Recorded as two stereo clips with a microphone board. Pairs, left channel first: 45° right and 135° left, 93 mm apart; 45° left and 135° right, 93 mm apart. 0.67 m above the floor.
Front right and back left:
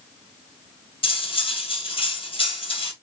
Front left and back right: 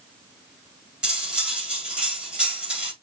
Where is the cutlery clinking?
55° right, 1.6 m.